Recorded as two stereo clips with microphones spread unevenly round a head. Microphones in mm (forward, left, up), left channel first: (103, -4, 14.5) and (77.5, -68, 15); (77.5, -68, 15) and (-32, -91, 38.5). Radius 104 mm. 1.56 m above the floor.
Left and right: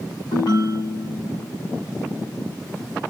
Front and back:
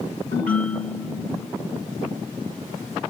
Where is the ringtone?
55° left, 5.5 m.